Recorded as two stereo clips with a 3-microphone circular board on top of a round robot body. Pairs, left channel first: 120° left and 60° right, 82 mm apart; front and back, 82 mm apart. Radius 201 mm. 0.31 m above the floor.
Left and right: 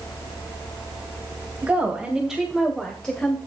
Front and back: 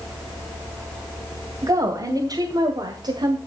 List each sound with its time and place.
1.6 s a woman speaking: 135° right, 2.5 m; by 3.4 s 165° right, 2 m